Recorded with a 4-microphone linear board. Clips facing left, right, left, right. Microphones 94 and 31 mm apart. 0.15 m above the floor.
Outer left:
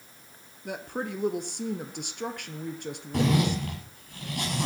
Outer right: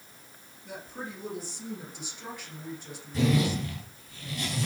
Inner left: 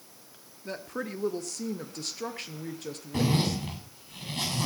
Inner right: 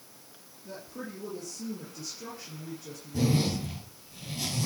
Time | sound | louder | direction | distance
0.7 | a woman speaking | outer left 7 dB, inner left 6 dB | 65° left (ahead or behind) | 2 m
3.1 | a zipper | outer left 1 dB, even | 65° left (ahead or behind) | 9 m